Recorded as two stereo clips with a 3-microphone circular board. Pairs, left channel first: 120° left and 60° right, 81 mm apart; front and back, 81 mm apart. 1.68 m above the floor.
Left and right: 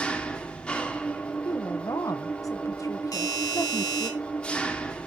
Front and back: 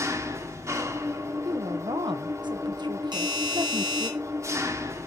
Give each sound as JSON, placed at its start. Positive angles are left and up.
{"t": 0.0, "sound": "an engine running", "azimuth_deg": -170, "distance_m": 1.4}
{"t": 1.4, "sound": "a woman speaking", "azimuth_deg": 165, "distance_m": 1.4}
{"t": 3.1, "sound": "a doorbell", "azimuth_deg": 165, "distance_m": 6.0}